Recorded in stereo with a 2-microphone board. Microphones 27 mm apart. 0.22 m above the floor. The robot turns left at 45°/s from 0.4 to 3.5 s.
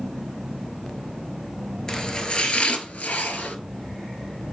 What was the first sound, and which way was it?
Chopping, 15° left (ahead or behind).